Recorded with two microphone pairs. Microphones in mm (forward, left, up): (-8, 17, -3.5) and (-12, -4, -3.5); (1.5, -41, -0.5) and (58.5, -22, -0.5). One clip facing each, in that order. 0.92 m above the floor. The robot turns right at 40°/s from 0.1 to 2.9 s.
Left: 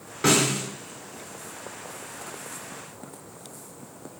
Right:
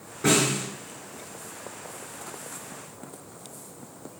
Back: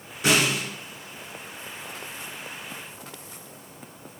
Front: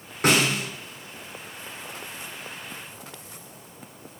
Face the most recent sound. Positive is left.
turn(degrees=165)